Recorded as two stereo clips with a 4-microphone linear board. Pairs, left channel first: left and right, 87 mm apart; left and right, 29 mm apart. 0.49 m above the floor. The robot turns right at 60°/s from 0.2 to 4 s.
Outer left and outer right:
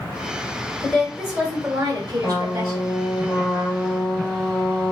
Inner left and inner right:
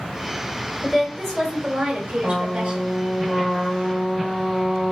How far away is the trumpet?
About 2.5 m.